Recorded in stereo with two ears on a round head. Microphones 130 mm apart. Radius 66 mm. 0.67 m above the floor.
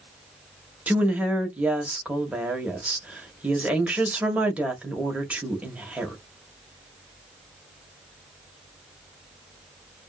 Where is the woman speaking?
10° right (ahead or behind), 1.0 m.